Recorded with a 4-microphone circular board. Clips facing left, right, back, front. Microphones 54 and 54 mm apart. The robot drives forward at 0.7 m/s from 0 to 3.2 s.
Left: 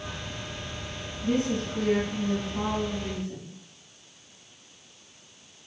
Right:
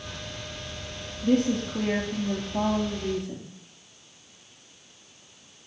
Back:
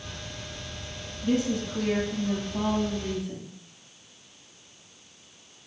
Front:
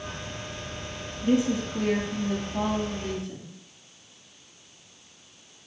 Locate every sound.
1.2 s a woman speaking: 65° right, 2.5 m; by 3.5 s 105° right, 2 m